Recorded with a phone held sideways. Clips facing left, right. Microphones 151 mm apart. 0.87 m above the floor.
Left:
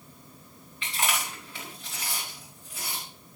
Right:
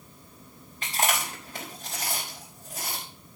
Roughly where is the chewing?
Right.